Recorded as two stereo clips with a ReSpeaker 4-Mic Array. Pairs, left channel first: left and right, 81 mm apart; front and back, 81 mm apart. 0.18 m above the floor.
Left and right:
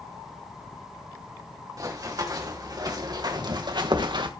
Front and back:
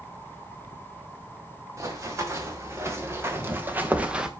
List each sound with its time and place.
1.8 s running footsteps: 130° right, 4 m; by 4.3 s 100° right, 1.4 m